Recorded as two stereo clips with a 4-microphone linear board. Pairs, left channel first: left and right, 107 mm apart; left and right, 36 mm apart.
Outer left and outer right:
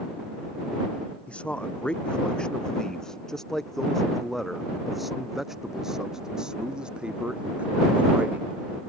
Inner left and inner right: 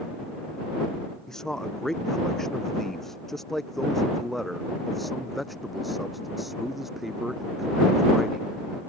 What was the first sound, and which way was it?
A man speaking, 10° left (ahead or behind).